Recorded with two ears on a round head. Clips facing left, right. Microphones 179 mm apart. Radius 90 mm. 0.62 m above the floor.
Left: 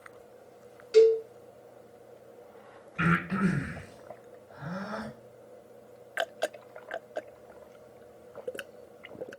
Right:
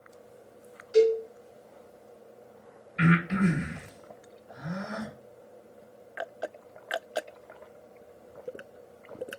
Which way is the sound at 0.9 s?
40° left (ahead or behind).